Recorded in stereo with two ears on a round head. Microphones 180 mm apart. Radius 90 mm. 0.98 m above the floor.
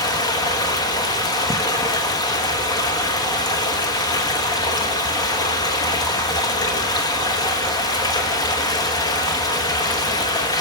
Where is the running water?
20° left (ahead or behind), 1.2 m.